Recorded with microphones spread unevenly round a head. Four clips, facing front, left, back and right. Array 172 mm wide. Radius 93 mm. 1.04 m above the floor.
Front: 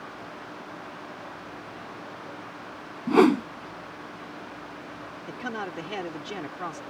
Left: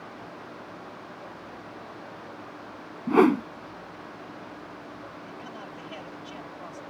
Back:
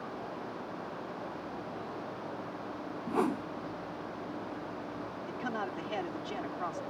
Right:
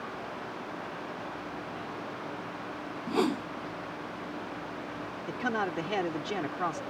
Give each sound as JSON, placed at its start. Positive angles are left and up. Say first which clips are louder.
{"t": 3.1, "sound": "a whoosh", "louder": "left 9 dB, front 13 dB", "azimuth_deg": 30}
{"t": 5.3, "sound": "a man speaking", "louder": "right 9 dB, front 3 dB", "azimuth_deg": -70}